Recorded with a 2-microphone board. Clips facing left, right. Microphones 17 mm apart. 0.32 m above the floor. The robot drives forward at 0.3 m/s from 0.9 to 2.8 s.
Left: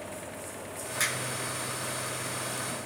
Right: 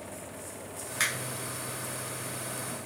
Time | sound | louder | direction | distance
1.0 | a finger snap | right 1 dB | 20° right (ahead or behind) | 1.1 m